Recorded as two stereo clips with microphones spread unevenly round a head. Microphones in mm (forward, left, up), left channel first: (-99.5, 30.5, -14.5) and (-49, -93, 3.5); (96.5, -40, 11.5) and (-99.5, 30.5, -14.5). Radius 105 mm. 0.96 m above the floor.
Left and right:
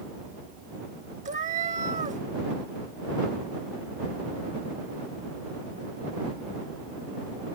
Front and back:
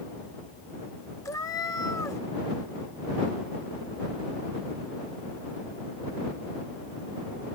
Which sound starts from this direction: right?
A cat meowing, at 1.2 s.